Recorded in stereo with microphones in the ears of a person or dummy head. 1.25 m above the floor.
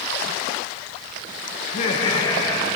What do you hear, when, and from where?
1.6 s laughter: 50° left (ahead or behind), 1.2 m; by 2.7 s 15° left (ahead or behind), 2 m